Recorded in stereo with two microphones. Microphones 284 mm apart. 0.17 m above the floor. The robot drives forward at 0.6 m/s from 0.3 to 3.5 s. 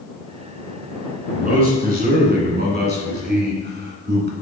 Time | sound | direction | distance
1.3 | a man speaking | 30° right (ahead or behind) | 2 m